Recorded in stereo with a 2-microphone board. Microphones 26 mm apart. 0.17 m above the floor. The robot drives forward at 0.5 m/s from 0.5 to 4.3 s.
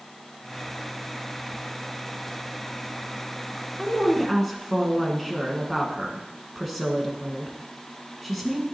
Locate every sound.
3.8 s a woman speaking: 5° right (ahead or behind), 1.2 m